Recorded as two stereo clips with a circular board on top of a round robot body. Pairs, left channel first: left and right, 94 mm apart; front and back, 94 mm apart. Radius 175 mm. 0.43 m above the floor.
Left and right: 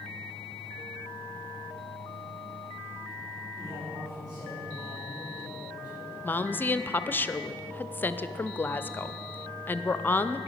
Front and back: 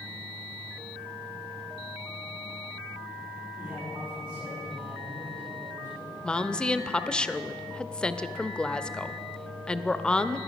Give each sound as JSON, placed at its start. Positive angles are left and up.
{"t": 3.6, "sound": "a man speaking", "azimuth_deg": -130, "distance_m": 6.0}
{"t": 6.2, "sound": "a woman speaking", "azimuth_deg": 65, "distance_m": 0.8}